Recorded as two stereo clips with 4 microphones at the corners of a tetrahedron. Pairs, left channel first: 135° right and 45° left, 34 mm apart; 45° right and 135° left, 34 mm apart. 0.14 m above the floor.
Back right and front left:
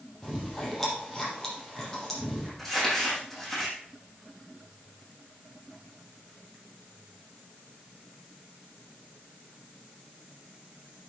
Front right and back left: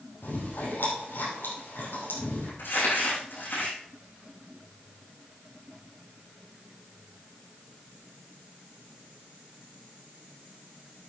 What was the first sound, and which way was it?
Chewing, 55° right.